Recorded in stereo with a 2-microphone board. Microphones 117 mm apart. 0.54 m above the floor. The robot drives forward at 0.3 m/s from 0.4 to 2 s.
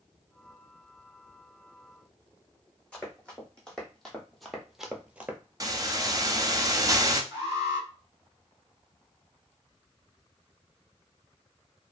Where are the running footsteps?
10° left (ahead or behind), 1.3 m; by 5.4 s 15° right (ahead or behind), 0.5 m.